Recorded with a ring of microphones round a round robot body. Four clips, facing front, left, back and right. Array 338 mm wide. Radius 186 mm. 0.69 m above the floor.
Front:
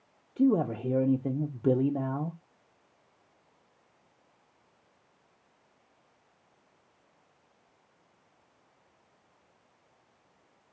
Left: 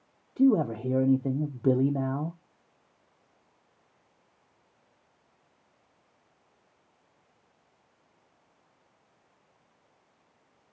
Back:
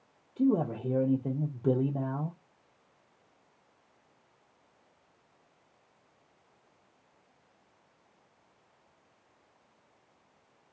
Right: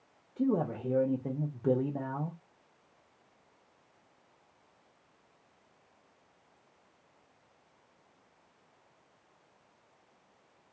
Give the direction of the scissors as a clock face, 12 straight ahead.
No scissors in this recording.